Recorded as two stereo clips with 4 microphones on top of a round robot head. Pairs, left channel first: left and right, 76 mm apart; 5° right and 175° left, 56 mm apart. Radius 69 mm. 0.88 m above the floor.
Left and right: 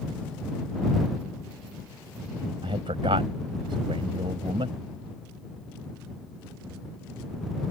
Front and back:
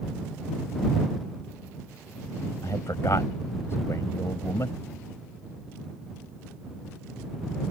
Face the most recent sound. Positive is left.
turn(degrees=-60)